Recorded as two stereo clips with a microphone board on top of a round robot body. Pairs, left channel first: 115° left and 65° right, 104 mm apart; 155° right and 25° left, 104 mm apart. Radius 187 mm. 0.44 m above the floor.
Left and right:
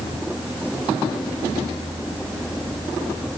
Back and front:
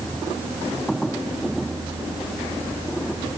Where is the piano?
I don't hear a piano.